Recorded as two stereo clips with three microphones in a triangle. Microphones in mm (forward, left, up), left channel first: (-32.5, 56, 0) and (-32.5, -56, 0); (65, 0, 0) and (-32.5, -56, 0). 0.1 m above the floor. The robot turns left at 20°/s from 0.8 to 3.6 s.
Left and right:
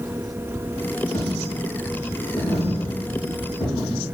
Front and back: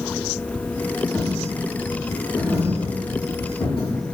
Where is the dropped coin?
110° left, 1.9 m; by 4.1 s 65° left, 1.9 m.